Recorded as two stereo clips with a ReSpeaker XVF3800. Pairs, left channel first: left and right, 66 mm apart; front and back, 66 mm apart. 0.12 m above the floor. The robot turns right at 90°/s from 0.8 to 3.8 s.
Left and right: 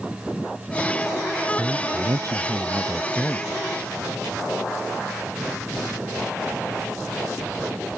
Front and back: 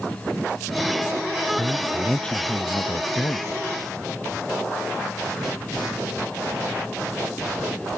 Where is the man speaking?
135° right; by 3.6 s 45° left.